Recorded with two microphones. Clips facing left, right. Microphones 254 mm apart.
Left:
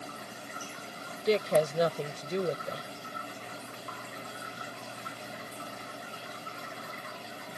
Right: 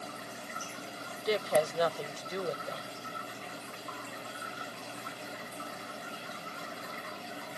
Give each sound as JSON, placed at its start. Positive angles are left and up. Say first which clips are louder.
{"t": 1.2, "sound": "a woman speaking", "louder": "left 3 dB", "side_deg": 25}